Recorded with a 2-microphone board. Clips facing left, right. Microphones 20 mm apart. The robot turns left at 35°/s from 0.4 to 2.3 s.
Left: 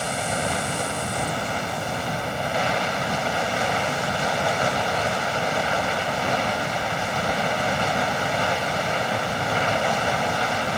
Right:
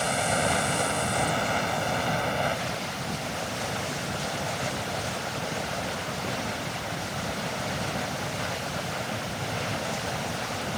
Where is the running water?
175° right; by 10.8 s 120° left.